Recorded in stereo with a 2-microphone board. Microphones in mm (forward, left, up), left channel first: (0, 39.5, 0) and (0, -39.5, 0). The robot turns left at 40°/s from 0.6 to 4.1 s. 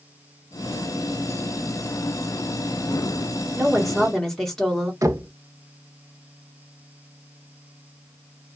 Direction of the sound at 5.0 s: 45° right (ahead or behind).